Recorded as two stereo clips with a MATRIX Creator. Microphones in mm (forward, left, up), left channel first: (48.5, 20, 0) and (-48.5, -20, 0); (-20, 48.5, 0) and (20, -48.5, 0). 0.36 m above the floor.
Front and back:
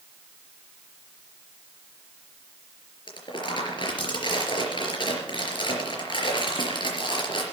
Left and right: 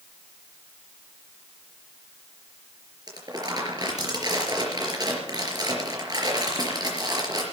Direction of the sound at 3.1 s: 20° right.